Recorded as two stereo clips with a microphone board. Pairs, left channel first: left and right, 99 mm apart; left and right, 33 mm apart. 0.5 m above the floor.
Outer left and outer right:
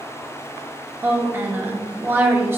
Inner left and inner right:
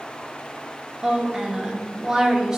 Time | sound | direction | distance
1.0 | a woman speaking | 25° right (ahead or behind) | 0.8 m